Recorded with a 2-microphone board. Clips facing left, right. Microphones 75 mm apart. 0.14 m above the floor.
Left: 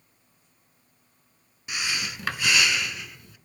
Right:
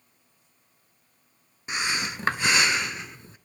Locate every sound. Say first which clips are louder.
1.7 s breathing: right 3 dB; 30° right (ahead or behind), 0.6 m